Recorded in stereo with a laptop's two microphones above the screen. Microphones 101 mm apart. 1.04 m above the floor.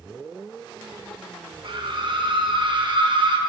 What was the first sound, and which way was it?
A scream, 55° right (ahead or behind).